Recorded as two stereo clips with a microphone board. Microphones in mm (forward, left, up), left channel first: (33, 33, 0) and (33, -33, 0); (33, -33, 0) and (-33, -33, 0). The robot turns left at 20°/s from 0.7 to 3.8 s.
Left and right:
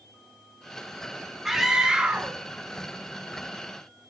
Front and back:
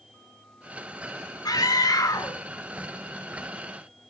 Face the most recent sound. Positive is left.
turn(degrees=-50)